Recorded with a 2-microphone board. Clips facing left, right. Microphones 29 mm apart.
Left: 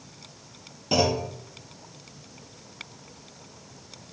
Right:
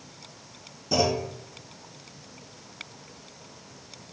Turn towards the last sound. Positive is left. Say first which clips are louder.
# left 1 dB
turn(degrees=55)  # may be behind; listen again after turning